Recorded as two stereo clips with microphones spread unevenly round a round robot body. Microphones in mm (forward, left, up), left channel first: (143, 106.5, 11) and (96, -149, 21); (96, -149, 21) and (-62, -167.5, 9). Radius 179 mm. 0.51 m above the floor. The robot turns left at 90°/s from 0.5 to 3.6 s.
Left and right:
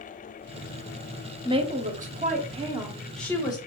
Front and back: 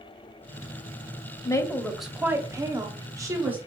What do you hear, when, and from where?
1.4 s a woman speaking: 45° right, 0.9 m; by 3.6 s 125° left, 0.9 m